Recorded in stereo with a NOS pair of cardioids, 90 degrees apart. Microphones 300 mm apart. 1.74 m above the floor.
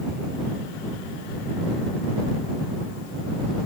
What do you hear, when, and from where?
Only background noise.